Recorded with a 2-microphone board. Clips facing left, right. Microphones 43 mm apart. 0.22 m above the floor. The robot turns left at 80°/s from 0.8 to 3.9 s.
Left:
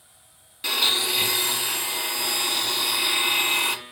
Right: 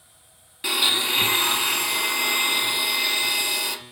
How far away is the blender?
About 1.0 m.